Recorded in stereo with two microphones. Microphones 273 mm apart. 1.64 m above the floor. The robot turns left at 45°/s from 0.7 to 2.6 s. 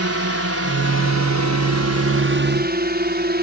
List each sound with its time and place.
0.0 s a drone: 55° right (ahead or behind); by 3.4 s 35° right (ahead or behind)